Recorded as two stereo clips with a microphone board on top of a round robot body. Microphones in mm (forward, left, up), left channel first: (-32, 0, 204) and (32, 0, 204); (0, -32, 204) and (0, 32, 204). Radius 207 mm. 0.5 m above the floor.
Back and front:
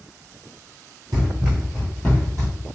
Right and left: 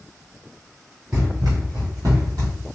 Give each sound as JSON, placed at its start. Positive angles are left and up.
{"t": 1.1, "sound": "running footsteps", "azimuth_deg": 30, "distance_m": 0.6}